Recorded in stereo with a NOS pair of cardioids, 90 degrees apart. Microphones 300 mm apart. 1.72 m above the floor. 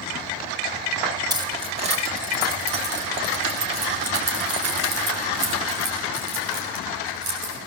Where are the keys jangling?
15° right, 3.5 m; by 7.7 s 70° right, 7.5 m.